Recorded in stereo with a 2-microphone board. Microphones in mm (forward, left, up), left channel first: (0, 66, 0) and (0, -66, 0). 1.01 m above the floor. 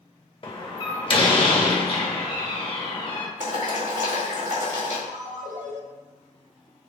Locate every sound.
0.4 s a door slam: 40° left (ahead or behind), 0.8 m
3.4 s boiling: 70° right (ahead or behind), 1.6 m
5.1 s a ringtone: 70° right (ahead or behind), 0.8 m